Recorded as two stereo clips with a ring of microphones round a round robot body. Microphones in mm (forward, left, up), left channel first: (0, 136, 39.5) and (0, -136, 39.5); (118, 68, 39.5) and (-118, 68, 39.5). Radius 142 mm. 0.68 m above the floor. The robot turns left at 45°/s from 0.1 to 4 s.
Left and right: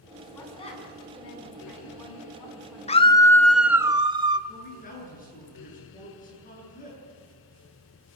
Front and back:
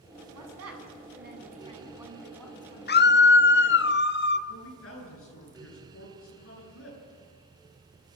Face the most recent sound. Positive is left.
turn(degrees=30)